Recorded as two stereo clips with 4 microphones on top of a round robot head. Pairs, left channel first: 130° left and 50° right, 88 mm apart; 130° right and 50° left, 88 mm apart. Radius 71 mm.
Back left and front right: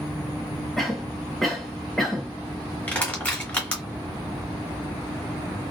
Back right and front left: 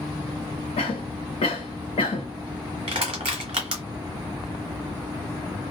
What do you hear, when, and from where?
0.8 s a cough: 145° right, 0.6 m
2.9 s crushing: 65° left, 0.9 m